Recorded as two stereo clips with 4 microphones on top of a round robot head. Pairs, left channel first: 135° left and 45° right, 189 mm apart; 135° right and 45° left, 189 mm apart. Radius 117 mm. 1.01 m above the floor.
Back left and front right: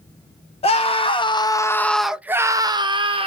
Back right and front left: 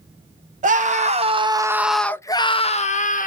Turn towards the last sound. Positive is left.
turn(degrees=-100)